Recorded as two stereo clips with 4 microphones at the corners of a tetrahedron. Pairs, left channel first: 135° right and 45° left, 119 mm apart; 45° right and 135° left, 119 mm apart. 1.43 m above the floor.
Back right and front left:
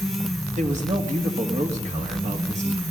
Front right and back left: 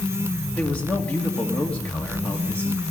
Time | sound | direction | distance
0.5 | a man speaking | 35° left | 2 m